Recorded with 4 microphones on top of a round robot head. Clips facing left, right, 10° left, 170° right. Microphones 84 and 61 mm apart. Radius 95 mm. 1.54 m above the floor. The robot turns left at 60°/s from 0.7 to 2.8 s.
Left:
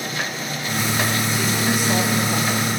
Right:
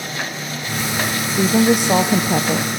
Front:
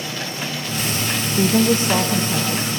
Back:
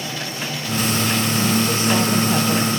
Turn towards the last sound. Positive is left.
turn(degrees=-120)